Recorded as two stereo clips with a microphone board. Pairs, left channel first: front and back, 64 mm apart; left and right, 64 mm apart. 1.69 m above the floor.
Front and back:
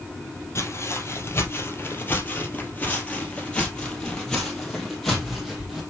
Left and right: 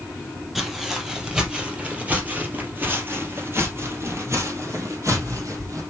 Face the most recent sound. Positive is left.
turn(degrees=-90)